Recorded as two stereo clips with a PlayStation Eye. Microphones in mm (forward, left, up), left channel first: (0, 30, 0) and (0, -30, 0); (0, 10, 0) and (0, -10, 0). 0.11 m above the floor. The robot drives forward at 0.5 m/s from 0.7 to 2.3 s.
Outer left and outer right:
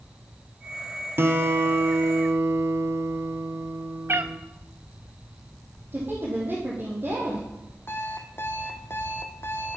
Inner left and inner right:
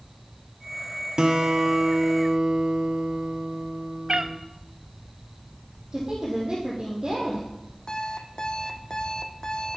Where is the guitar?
40° right (ahead or behind), 1.5 m; by 4.4 s 50° right (ahead or behind), 1.3 m.